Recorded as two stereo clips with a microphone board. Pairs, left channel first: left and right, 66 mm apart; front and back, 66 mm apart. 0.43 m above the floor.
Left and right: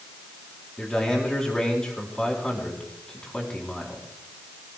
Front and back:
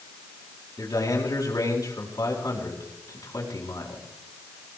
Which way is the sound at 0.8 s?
15° left.